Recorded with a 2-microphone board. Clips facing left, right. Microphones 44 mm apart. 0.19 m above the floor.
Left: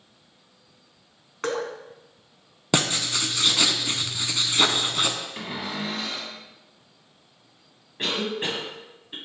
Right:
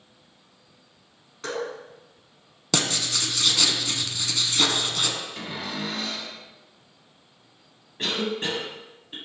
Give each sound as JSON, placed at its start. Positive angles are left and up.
{"t": 1.4, "sound": "dripping", "side_deg": 50, "distance_m": 0.9}
{"t": 2.7, "sound": "writing", "side_deg": 25, "distance_m": 0.6}
{"t": 5.4, "sound": "a cupboard door", "side_deg": 20, "distance_m": 1.3}
{"t": 8.0, "sound": "a cough", "side_deg": 10, "distance_m": 1.3}